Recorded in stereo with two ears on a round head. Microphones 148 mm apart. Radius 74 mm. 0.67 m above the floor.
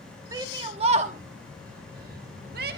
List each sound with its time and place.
0.3 s a shout: 20° right (ahead or behind), 1.1 m; by 2.8 s 60° right (ahead or behind), 1.8 m